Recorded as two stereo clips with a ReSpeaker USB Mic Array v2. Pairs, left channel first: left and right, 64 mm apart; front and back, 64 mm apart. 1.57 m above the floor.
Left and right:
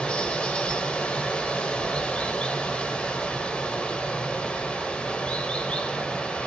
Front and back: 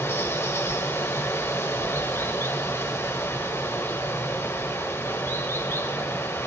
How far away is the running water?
About 1.8 m.